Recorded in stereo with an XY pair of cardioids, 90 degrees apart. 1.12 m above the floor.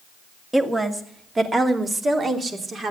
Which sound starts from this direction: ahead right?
A woman speaking, at 0.5 s.